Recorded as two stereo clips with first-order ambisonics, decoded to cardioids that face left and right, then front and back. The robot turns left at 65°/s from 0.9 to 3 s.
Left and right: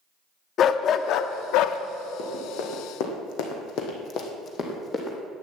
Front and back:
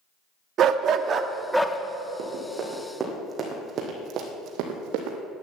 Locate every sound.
0.6 s a dog barking: 135° left, 0.7 m; by 1.8 s 80° left, 0.7 m
2.2 s running footsteps: 145° left, 3.5 m; by 5.2 s 165° left, 2.5 m